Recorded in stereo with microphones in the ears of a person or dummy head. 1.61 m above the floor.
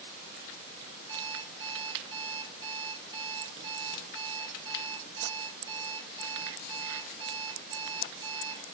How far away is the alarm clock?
About 3.5 m.